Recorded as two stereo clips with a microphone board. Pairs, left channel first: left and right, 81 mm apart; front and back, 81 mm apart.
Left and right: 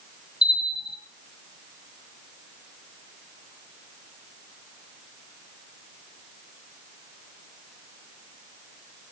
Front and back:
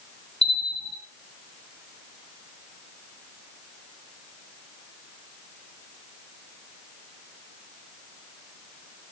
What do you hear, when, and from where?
0.4 s a bell: 80° left, 3.5 m